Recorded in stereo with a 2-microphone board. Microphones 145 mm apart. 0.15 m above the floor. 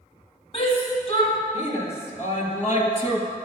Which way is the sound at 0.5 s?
45° left (ahead or behind).